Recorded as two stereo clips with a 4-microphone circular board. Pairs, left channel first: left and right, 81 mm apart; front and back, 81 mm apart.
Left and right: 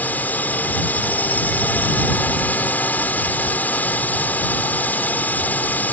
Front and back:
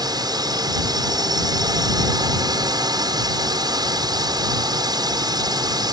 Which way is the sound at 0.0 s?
155° left.